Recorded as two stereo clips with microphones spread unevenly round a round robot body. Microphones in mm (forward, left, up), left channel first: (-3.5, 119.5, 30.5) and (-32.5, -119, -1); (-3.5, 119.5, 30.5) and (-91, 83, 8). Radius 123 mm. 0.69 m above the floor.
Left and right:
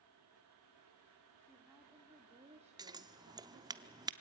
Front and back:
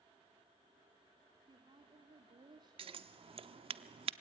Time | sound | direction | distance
1.5 | a woman speaking | 175° left | 1.8 m
2.8 | scissors | 170° right | 0.7 m